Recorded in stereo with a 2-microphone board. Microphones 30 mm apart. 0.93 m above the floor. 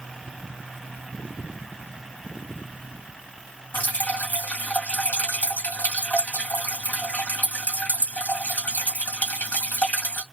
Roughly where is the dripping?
Left.